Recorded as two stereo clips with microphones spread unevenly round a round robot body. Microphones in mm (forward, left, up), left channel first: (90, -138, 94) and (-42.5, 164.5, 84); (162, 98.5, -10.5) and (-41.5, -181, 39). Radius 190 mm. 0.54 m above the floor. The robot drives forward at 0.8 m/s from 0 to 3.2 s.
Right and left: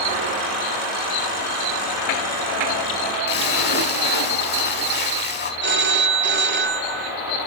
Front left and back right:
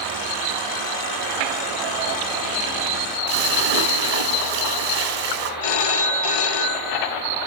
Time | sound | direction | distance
3.3 | a splash | 125° right | 4.5 m
5.6 | a phone ringing | 55° left | 2.5 m